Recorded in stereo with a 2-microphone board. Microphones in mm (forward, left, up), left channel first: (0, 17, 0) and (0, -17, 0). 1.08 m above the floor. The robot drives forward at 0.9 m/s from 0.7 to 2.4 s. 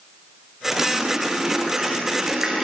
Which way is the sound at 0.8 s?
20° right (ahead or behind).